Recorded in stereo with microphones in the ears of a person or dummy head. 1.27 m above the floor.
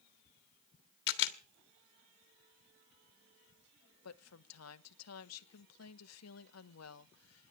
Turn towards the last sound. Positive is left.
turn(degrees=80)